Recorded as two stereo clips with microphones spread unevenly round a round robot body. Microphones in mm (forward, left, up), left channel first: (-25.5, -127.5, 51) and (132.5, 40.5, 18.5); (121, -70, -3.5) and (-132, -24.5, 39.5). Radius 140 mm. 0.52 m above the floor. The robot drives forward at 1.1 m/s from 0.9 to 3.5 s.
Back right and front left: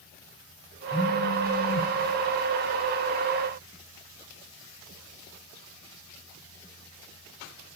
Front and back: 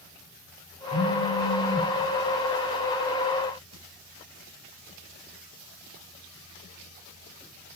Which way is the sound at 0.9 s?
65° right.